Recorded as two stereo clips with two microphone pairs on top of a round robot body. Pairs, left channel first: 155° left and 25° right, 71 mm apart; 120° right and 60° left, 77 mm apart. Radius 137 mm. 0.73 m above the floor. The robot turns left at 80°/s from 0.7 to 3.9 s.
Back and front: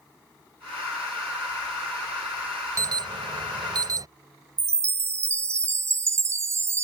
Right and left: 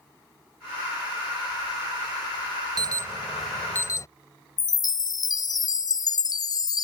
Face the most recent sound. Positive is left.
turn(degrees=-80)